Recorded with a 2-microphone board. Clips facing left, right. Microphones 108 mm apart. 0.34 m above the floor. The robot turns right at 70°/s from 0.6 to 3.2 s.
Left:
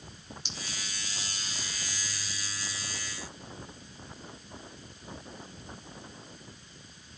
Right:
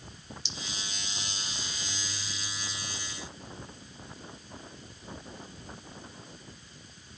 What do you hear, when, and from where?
0.5 s a clink: 45° left (ahead or behind), 3 m; by 0.8 s 55° left (ahead or behind), 3 m